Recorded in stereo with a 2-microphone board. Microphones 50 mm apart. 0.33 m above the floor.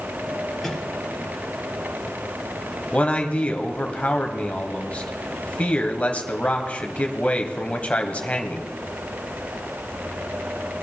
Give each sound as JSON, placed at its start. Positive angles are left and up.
{"t": 0.6, "sound": "a microwave", "side_deg": 5, "distance_m": 4.5}
{"t": 2.9, "sound": "a man speaking", "side_deg": 30, "distance_m": 1.8}